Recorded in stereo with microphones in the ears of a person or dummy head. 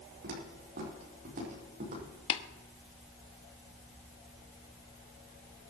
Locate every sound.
0.2 s footsteps: 65° right (ahead or behind), 5 m; by 2.0 s 55° right (ahead or behind), 5.5 m
2.3 s tapping: 30° left (ahead or behind), 0.9 m